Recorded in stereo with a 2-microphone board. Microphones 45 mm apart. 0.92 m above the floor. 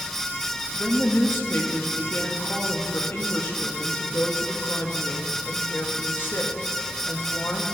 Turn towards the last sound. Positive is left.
turn(degrees=60)  # may be behind; listen again after turning